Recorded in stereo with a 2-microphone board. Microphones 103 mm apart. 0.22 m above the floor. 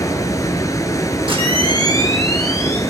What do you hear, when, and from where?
0.0 s running water: 35° left (ahead or behind), 1.5 m
1.3 s a camera shutter: 65° right (ahead or behind), 3 m